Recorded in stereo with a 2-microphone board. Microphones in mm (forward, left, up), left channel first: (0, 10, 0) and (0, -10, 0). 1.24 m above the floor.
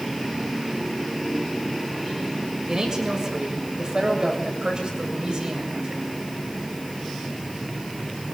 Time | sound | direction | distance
2.7 | a man speaking | 35° right (ahead or behind) | 7 m